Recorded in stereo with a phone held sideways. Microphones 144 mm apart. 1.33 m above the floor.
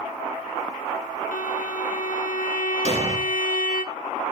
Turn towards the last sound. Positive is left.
turn(degrees=-50)  # may be behind; listen again after turning